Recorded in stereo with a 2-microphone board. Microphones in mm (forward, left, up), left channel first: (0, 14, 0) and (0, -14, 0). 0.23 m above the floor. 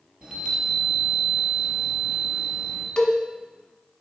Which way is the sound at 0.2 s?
35° right (ahead or behind).